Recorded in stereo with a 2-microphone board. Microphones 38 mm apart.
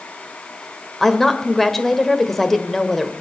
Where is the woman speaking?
10° left (ahead or behind), 1.3 m.